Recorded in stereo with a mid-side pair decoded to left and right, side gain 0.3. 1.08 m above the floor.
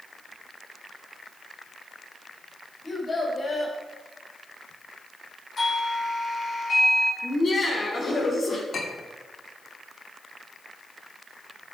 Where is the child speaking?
35° left, 4.5 m.